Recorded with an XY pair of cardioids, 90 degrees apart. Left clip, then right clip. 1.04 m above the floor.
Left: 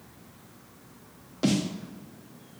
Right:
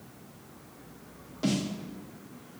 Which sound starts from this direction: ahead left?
A snare drum, at 1.4 s.